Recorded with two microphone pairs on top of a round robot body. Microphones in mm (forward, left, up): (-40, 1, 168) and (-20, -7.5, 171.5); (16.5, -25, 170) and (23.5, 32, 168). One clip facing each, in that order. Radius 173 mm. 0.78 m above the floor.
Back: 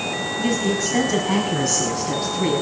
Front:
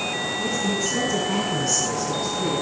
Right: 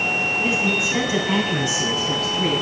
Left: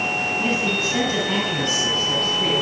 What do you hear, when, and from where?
0.4 s a man speaking: 175° right, 7 m; by 2.6 s straight behind, 8 m